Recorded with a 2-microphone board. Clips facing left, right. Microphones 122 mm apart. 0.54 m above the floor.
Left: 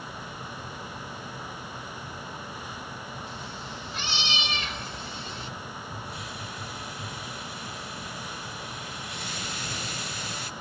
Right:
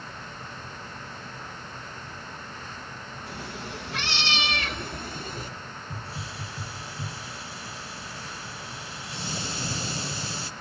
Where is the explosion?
I don't hear an explosion.